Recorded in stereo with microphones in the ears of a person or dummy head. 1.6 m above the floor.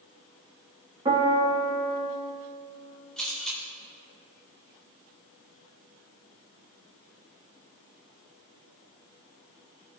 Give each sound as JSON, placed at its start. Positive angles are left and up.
{"t": 1.1, "sound": "a piano", "side_deg": -25, "distance_m": 2.0}
{"t": 3.2, "sound": "a camera shutter", "side_deg": 5, "distance_m": 2.5}